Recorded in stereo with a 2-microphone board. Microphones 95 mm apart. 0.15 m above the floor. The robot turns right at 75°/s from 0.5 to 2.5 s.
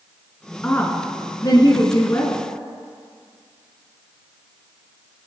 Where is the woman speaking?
20° left, 1.3 m; by 2.4 s 155° left, 1.3 m.